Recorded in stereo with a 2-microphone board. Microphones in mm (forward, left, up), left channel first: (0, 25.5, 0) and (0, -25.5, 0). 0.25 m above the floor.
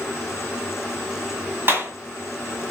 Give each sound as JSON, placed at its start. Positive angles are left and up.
{"t": 1.7, "sound": "a clap", "side_deg": -45, "distance_m": 2.5}